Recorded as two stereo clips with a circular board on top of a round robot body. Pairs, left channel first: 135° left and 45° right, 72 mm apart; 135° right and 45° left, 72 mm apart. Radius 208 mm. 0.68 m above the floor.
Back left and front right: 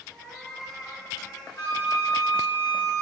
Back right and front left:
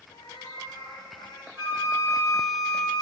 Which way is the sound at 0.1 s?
140° right.